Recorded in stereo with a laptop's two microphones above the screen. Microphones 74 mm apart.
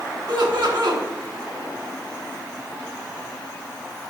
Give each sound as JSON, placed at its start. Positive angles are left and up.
{"t": 0.3, "sound": "laughter", "side_deg": -75, "distance_m": 2.0}